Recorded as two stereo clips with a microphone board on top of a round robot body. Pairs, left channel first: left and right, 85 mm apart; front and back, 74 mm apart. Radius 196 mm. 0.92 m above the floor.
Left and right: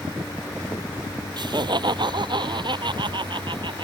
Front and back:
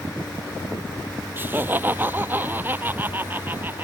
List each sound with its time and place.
1.4 s laughter: 120° right; by 3.9 s 115° right